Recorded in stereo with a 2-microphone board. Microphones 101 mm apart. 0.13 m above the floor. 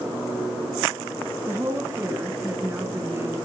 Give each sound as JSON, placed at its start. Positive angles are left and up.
{"t": 1.5, "sound": "a woman speaking", "side_deg": -25, "distance_m": 1.4}